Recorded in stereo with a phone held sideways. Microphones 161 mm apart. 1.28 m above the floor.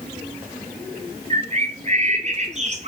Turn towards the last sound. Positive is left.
turn(degrees=-45)  # may be behind; listen again after turning